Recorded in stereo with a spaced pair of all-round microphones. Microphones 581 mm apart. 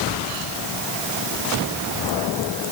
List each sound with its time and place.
Only background noise.